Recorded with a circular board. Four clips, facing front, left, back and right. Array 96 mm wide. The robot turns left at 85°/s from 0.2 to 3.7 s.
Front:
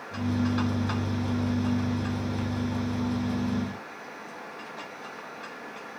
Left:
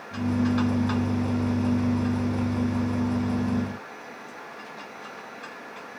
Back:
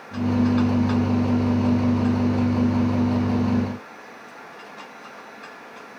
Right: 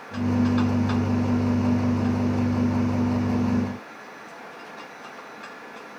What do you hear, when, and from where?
Only background noise.